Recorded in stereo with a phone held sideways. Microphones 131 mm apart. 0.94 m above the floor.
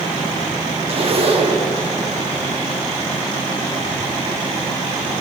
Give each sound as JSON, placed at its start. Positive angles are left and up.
{"t": 0.9, "sound": "a zipper", "side_deg": -45, "distance_m": 0.9}